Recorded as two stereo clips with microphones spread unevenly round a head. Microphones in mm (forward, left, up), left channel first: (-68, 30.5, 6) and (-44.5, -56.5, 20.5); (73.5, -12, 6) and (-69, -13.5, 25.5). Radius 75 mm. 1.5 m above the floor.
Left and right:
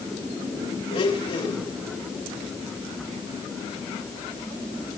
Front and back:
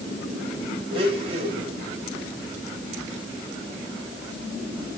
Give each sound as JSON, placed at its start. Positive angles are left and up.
{"t": 0.9, "sound": "a blender", "azimuth_deg": 125, "distance_m": 4.0}